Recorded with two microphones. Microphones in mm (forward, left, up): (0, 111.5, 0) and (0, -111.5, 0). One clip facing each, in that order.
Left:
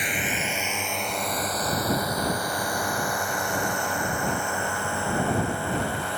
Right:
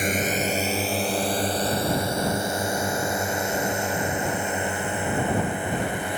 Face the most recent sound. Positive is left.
turn(degrees=-15)  # may be behind; listen again after turning